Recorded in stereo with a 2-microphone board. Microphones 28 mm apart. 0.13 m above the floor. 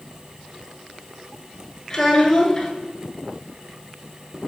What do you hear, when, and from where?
1.9 s a child speaking: 20° left (ahead or behind), 1.1 m